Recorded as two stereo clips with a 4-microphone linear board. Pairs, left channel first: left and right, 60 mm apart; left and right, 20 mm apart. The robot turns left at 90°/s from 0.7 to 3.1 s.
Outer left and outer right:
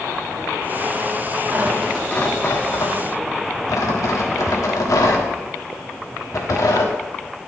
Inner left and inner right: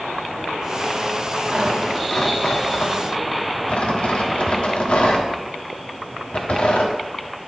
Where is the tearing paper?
30° right (ahead or behind), 1.3 m; by 6.9 s 65° left (ahead or behind), 1.3 m.